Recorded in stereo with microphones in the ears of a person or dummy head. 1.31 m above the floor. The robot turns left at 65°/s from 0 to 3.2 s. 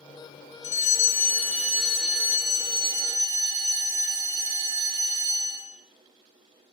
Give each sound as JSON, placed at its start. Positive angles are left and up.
{"t": 0.6, "sound": "a fire alarm", "side_deg": 20, "distance_m": 0.8}